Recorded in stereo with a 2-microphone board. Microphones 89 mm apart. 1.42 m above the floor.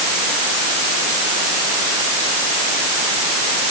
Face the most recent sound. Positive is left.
No sound to turn to.